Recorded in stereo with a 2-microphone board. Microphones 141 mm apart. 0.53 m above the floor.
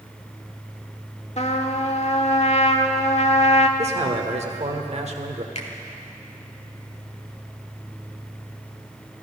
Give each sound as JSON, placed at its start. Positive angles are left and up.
{"t": 1.4, "sound": "a trumpet", "side_deg": 50, "distance_m": 1.0}
{"t": 3.8, "sound": "a man speaking", "side_deg": -50, "distance_m": 1.4}
{"t": 5.5, "sound": "a finger snap", "side_deg": 50, "distance_m": 1.6}